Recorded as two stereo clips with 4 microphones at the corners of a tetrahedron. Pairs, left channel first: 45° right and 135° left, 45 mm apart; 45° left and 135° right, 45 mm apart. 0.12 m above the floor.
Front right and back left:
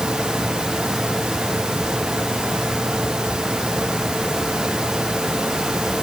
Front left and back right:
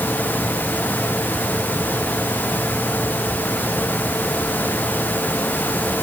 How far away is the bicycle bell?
No bicycle bell in this recording.